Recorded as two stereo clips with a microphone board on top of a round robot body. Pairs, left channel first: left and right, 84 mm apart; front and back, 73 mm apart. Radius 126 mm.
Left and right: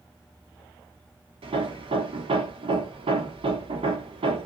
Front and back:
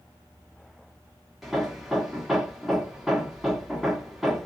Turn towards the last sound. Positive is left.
turn(degrees=-95)